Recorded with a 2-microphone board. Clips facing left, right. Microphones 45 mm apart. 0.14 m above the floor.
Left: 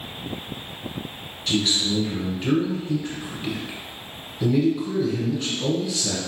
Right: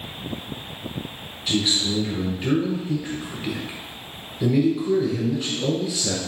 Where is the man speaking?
5° right (ahead or behind), 1.2 m.